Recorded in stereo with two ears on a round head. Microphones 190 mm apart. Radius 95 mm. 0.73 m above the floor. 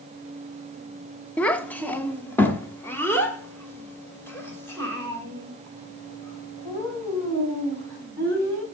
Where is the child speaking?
5° left (ahead or behind), 0.8 m; by 8.6 s 10° left (ahead or behind), 5 m.